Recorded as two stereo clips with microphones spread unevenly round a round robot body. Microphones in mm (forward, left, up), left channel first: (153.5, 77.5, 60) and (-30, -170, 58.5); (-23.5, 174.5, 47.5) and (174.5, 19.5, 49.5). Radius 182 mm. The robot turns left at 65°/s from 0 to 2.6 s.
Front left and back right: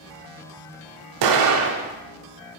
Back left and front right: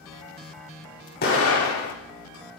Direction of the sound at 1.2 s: 155° right.